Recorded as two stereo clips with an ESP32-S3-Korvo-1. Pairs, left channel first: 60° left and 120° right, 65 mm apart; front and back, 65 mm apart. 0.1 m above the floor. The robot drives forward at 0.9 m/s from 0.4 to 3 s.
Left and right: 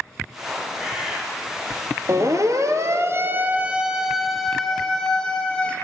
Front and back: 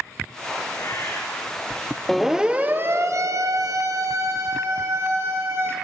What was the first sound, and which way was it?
A bird, 40° right.